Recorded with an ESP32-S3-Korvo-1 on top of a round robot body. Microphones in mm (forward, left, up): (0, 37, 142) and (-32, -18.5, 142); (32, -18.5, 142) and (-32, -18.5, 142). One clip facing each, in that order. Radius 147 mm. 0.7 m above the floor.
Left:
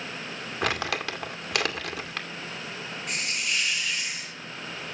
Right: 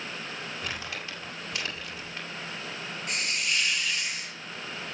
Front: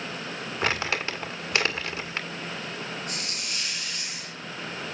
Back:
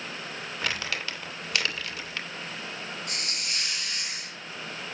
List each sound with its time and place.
0.6 s crumpling: 60° left, 1.9 m
3.1 s a hiss: 150° left, 4 m